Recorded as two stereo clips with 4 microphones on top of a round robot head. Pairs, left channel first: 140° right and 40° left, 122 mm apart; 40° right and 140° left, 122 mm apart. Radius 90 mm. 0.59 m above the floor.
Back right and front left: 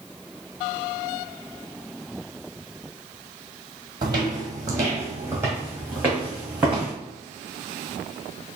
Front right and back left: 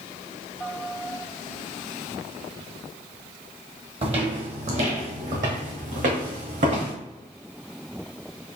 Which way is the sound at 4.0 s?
95° left.